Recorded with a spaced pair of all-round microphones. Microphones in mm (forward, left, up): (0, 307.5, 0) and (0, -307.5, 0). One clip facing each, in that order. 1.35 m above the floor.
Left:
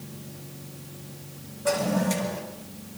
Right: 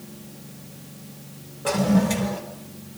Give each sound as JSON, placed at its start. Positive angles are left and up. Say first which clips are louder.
{"t": 1.6, "sound": "a toilet flushing", "louder": "right 5 dB", "side_deg": -80, "distance_m": 4.5}